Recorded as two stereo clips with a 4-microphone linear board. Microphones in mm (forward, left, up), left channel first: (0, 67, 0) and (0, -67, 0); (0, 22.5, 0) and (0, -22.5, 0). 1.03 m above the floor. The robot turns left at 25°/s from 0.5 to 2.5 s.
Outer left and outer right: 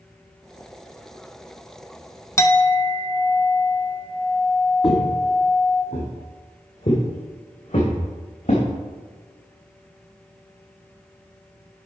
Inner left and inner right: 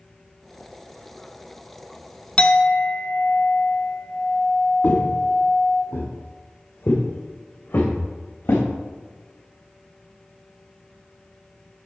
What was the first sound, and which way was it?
A clink, 25° left (ahead or behind).